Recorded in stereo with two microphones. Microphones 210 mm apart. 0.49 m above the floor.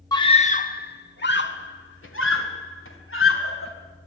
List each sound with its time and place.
0.1 s a scream: 15° left (ahead or behind), 0.8 m; by 3.7 s 75° left (ahead or behind), 3 m